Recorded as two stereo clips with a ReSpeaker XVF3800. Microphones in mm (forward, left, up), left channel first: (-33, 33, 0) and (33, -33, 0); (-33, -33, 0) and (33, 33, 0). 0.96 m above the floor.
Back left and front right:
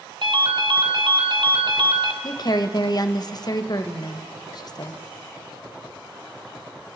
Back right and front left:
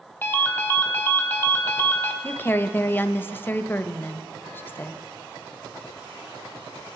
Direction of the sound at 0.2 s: 70° right.